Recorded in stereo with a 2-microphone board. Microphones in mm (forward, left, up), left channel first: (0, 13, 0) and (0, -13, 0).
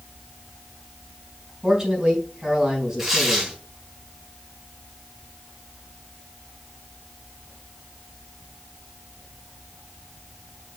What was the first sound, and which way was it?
A man speaking, 10° right (ahead or behind).